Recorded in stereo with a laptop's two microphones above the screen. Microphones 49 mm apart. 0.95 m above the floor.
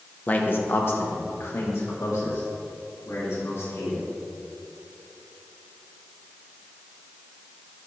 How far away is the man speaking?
About 0.8 m.